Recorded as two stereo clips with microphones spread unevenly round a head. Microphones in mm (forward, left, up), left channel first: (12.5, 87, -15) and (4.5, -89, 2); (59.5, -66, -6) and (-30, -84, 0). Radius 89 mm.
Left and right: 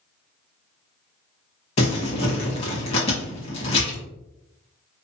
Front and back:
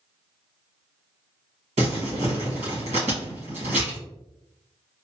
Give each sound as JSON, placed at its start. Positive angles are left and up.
{"t": 1.8, "sound": "crumpling", "azimuth_deg": 145, "distance_m": 1.4}